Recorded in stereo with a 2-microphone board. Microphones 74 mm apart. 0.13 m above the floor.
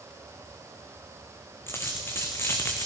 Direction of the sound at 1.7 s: 30° left (ahead or behind).